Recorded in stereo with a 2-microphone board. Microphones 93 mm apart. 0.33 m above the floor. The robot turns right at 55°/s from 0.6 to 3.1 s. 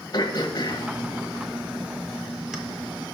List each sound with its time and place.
0.1 s throat clearing: 50° left (ahead or behind), 1.2 m; by 2.6 s 5° right (ahead or behind), 1.2 m